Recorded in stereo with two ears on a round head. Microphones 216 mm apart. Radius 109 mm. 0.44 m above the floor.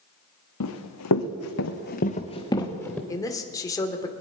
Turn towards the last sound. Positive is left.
turn(degrees=15)  # may be behind; listen again after turning